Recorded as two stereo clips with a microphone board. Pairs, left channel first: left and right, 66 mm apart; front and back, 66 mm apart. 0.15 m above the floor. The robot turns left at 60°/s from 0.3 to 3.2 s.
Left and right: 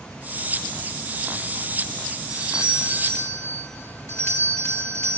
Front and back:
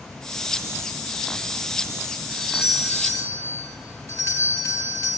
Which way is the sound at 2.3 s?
95° left.